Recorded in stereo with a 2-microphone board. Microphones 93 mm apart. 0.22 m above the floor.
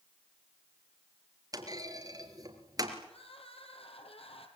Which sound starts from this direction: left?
Crying, at 3.0 s.